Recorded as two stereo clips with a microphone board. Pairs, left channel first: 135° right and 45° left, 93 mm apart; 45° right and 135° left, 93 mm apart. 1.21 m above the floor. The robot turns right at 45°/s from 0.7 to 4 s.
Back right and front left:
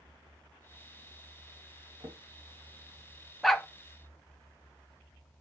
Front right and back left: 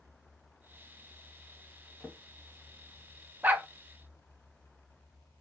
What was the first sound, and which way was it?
A drawer, 35° left.